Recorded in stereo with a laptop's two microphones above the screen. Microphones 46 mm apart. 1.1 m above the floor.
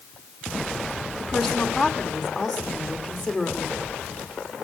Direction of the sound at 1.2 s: Centre (ahead or behind).